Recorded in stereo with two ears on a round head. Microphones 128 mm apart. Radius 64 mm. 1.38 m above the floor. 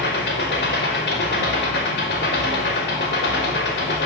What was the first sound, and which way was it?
An engine running, 85° left.